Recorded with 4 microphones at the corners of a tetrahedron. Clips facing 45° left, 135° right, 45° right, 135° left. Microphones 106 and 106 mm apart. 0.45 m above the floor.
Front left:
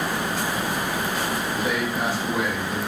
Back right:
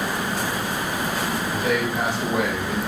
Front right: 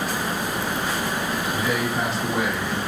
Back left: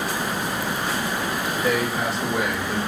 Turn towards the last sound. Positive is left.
turn(degrees=-145)